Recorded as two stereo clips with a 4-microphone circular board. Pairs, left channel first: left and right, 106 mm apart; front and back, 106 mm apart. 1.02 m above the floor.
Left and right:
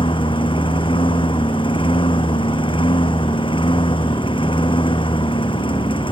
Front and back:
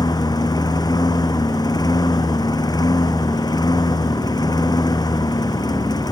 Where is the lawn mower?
55° left.